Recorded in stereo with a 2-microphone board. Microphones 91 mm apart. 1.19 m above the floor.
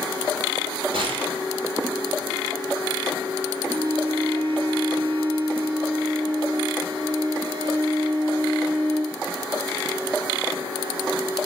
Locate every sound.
0.9 s a gunshot: 80° right, 5.5 m
3.7 s a violin: 90° right, 5.5 m